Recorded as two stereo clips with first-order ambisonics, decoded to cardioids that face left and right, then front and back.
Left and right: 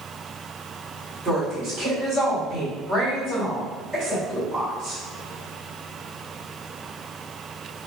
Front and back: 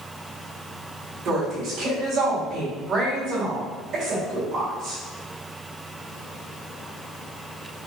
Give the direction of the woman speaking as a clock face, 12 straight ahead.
5 o'clock.